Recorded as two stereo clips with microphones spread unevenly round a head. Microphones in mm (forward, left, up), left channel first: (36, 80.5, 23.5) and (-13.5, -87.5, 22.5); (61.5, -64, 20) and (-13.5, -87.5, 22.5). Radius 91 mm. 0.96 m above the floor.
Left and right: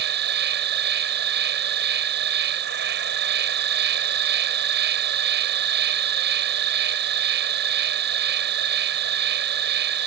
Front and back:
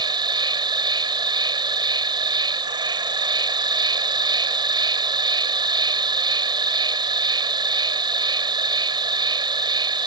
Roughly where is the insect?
Behind right.